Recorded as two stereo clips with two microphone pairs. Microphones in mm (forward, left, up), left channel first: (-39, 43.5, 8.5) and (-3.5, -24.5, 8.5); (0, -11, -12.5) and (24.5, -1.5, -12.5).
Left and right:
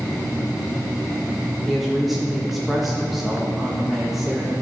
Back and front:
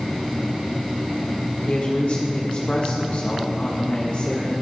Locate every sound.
1.6 s a woman speaking: 150° right, 1.3 m